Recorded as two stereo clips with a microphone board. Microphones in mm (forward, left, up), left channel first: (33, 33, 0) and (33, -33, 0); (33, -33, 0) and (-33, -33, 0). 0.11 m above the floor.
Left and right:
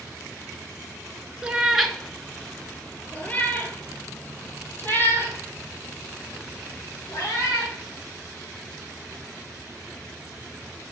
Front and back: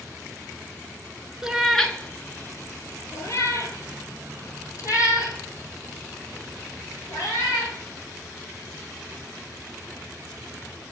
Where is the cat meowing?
120° right, 0.7 m; by 7.7 s 35° left, 4 m.